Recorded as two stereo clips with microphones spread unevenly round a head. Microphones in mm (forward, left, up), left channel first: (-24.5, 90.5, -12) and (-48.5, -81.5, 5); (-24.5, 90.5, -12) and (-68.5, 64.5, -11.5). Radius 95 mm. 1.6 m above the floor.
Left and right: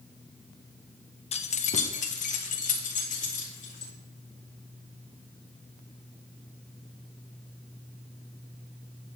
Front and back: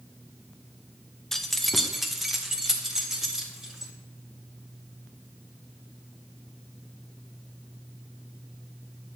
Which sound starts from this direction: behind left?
Keys jangling, at 1.3 s.